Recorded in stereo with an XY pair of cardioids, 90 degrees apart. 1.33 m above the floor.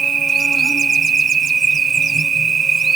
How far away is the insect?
About 6 m.